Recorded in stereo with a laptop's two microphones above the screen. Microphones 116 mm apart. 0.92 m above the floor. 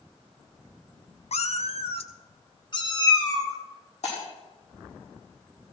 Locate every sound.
1.3 s a cat meowing: 65° left (ahead or behind), 0.5 m; by 3.6 s 30° left (ahead or behind), 1.6 m
4.0 s breaking glass: 80° left, 5.5 m